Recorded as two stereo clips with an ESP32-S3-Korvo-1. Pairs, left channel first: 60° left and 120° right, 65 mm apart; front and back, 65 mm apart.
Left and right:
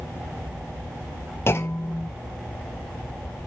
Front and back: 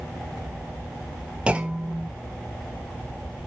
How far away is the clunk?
About 1.2 m.